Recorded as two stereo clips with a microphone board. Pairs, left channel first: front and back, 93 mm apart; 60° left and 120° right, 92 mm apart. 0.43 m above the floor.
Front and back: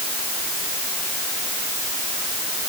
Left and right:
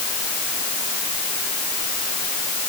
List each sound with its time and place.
Only background noise.